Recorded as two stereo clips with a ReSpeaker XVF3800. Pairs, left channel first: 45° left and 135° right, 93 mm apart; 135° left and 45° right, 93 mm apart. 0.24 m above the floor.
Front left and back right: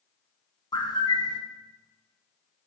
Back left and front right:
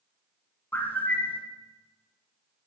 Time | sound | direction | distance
0.7 | a bird | 65° left | 0.9 m